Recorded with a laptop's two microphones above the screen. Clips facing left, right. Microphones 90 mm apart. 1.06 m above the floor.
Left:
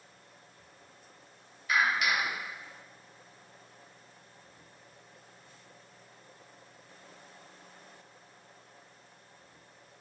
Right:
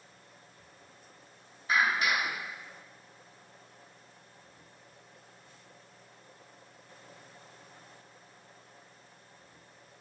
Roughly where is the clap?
Right.